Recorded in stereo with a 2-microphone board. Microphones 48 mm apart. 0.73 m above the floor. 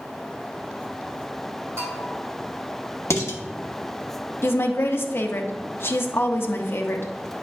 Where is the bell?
55° right (ahead or behind), 3 m.